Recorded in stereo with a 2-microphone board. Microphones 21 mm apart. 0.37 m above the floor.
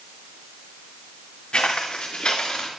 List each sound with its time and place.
1.5 s footsteps: 45° left (ahead or behind), 2.5 m; by 2.7 s 35° left (ahead or behind), 3.5 m